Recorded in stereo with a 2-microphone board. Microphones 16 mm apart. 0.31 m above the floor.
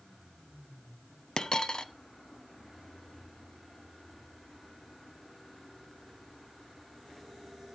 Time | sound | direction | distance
1.4 | a dropped coin | 50° left (ahead or behind) | 0.8 m